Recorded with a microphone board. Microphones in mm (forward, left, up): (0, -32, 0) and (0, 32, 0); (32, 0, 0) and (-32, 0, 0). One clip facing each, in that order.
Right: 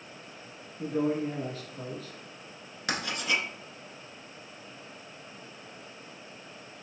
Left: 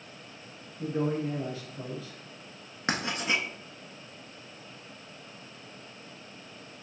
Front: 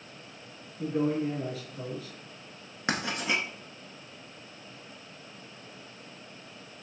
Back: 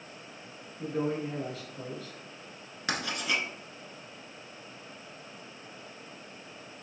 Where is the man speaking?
70° right, 1.5 m.